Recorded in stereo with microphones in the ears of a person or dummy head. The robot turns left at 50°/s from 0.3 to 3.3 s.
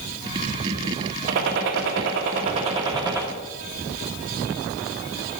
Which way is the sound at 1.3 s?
70° right.